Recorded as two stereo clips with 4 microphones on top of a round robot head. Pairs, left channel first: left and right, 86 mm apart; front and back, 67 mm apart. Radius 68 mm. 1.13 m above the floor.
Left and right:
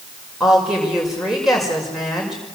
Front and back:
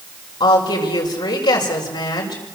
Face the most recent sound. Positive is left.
turn(degrees=0)